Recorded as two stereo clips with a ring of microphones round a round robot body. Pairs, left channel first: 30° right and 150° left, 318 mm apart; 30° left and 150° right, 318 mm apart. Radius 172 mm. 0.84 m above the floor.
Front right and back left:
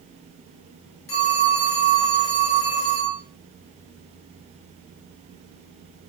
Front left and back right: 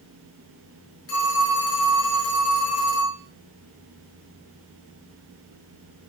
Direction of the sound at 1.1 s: 15° right.